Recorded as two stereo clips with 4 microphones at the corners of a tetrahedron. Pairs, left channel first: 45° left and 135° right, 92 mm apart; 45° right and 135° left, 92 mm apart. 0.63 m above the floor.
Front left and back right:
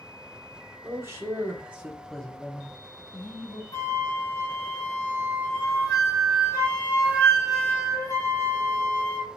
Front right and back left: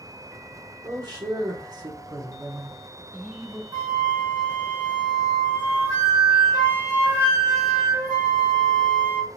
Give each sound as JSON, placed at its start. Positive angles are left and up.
{"t": 0.8, "sound": "a man speaking", "azimuth_deg": 170, "distance_m": 1.4}
{"t": 3.7, "sound": "a flute", "azimuth_deg": 95, "distance_m": 2.5}